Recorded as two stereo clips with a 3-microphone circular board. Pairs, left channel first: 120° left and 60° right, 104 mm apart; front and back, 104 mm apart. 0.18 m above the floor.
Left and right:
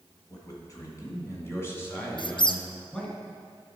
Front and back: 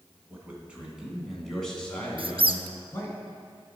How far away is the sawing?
I don't hear sawing.